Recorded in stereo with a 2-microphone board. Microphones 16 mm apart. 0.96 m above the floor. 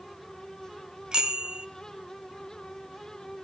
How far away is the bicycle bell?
About 2.5 m.